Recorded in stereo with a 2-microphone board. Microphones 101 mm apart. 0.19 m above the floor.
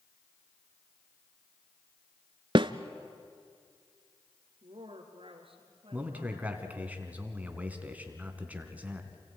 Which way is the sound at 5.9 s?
15° right (ahead or behind).